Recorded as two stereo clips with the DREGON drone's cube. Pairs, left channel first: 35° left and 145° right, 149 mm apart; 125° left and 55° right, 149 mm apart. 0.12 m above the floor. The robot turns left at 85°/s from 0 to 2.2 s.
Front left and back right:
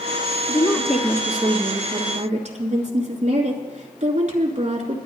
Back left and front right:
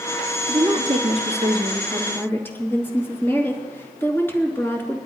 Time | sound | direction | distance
0.5 | a woman speaking | 15° right | 2.5 m